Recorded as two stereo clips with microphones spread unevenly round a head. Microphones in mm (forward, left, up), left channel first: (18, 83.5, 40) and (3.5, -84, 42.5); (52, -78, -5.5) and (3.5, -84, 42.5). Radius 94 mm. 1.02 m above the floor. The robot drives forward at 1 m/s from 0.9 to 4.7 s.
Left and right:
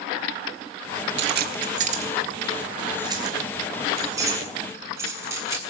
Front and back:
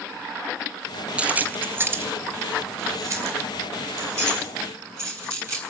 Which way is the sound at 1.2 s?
120° right.